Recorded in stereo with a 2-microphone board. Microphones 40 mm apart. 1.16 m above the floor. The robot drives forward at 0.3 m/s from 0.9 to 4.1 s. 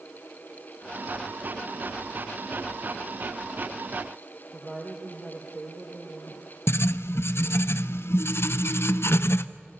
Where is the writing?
85° left, 0.8 m.